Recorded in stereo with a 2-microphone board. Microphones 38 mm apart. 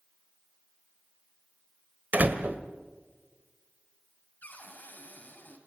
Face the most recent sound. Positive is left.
turn(degrees=50)  # may be behind; listen again after turning